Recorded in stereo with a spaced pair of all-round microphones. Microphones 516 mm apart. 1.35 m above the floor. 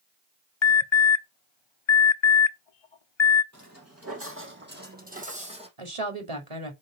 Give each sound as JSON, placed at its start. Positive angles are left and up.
{"t": 0.6, "sound": "an alarm", "side_deg": 60, "distance_m": 0.7}
{"t": 3.5, "sound": "footsteps", "side_deg": -35, "distance_m": 3.0}
{"t": 5.8, "sound": "a woman speaking", "side_deg": -75, "distance_m": 2.5}